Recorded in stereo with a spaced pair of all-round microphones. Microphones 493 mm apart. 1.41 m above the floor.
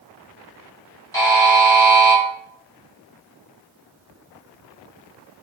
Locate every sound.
1.1 s a buzzer: 5° left (ahead or behind), 1.6 m